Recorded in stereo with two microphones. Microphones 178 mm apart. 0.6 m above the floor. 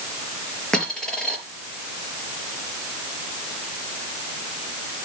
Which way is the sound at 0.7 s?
5° left (ahead or behind).